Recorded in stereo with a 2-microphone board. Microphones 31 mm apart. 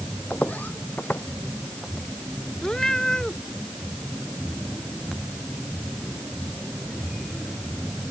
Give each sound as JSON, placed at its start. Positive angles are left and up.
{"t": 0.3, "sound": "footsteps", "side_deg": 55}
{"t": 2.6, "sound": "a cat meowing", "side_deg": 20}